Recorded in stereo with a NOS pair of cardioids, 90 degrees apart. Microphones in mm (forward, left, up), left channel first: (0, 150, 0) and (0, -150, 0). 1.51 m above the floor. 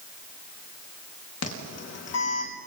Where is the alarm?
55° left, 4.5 m.